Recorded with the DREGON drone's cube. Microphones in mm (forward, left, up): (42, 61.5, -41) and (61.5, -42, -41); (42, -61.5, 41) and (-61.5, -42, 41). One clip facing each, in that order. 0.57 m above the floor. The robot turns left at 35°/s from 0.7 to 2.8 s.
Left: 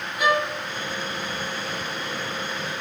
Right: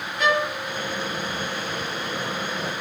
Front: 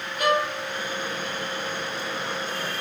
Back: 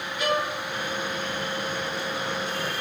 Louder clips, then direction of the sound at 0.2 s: Even, front 3 dB; 20° left.